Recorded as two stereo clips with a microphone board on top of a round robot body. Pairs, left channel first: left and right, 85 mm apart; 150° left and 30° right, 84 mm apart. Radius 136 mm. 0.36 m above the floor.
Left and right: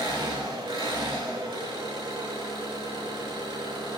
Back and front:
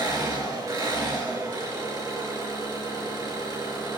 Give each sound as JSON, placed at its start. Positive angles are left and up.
{"t": 0.0, "sound": "an engine running", "azimuth_deg": -70, "distance_m": 5.0}